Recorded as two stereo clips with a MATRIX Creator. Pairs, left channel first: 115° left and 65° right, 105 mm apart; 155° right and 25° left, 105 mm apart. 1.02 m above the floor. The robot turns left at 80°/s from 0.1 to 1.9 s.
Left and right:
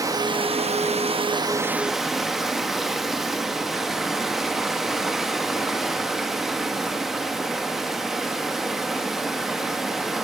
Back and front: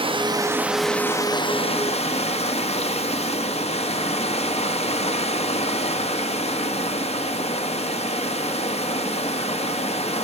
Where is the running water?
10° right, 0.7 m; by 10.2 s 155° right, 0.7 m.